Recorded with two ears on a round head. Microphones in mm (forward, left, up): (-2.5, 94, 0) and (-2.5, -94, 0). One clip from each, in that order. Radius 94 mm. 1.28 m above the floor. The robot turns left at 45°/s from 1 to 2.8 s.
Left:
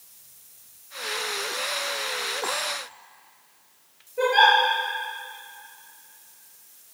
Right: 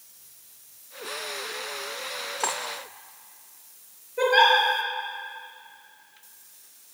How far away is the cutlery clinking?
About 1.3 m.